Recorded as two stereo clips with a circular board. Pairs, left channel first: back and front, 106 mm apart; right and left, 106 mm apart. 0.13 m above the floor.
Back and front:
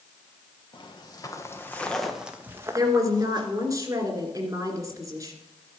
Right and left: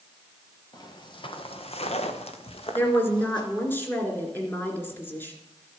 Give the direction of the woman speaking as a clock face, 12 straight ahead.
1 o'clock.